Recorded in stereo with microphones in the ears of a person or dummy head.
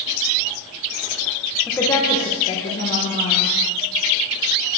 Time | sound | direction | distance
1.7 | a woman speaking | 5° left (ahead or behind) | 0.9 m